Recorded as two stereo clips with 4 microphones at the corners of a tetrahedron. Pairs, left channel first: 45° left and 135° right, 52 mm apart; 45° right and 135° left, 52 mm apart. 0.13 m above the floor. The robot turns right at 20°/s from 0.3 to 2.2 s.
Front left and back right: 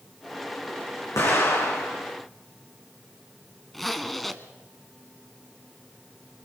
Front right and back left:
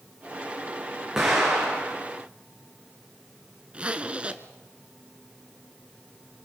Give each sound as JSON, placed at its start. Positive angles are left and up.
{"t": 1.2, "sound": "an explosion", "azimuth_deg": 55, "distance_m": 7.5}
{"t": 3.7, "sound": "a zipper", "azimuth_deg": 130, "distance_m": 1.0}